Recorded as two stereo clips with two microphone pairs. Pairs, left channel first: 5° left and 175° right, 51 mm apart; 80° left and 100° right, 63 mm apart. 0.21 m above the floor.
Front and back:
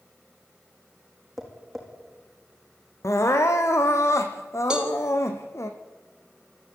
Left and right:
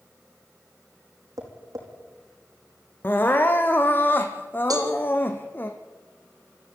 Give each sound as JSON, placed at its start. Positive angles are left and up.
{"t": 1.4, "sound": "tapping", "azimuth_deg": -80, "distance_m": 5.5}
{"t": 3.0, "sound": "crying", "azimuth_deg": 25, "distance_m": 2.0}
{"t": 4.7, "sound": "a cowbell", "azimuth_deg": -100, "distance_m": 4.0}